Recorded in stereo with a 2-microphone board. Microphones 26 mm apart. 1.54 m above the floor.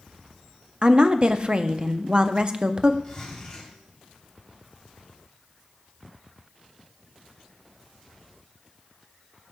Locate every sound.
0.8 s a woman speaking: 40° right (ahead or behind), 0.5 m
3.0 s a zipper: 20° left (ahead or behind), 4 m